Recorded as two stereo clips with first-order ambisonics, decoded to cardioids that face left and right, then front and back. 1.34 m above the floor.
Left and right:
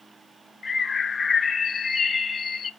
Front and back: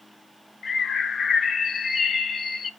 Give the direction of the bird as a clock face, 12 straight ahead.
11 o'clock.